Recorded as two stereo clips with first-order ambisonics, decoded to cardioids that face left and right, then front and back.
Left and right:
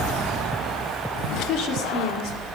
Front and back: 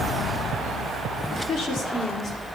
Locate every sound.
1.3 s a woman speaking: 45° left, 1.6 m; by 2.5 s 60° left, 2.5 m